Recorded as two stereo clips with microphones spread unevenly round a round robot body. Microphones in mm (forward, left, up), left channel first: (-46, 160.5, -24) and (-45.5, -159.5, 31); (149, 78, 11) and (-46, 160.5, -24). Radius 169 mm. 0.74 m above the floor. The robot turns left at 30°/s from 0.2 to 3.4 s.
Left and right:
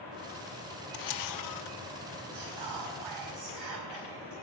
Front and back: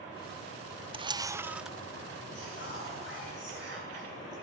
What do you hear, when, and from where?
0.9 s a camera shutter: 95° left, 0.8 m; by 1.8 s 70° left, 0.8 m
2.3 s whispering: 70° right, 7.5 m; by 4.3 s 100° right, 7.5 m